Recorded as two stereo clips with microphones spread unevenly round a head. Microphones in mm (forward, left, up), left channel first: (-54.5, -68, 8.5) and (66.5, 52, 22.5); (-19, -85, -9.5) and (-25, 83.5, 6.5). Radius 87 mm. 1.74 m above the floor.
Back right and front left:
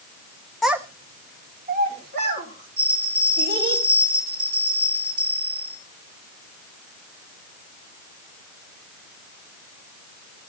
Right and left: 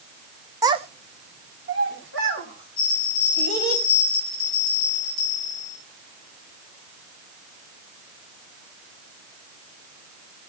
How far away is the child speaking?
About 0.6 m.